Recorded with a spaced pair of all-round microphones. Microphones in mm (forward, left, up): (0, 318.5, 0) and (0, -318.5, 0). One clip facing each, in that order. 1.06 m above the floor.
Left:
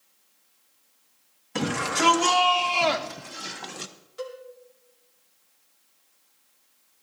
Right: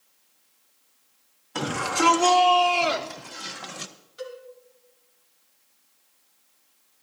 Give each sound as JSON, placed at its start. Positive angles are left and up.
{"t": 1.6, "sound": "a shout", "side_deg": 50, "distance_m": 1.8}
{"t": 4.2, "sound": "a cowbell", "side_deg": 70, "distance_m": 2.5}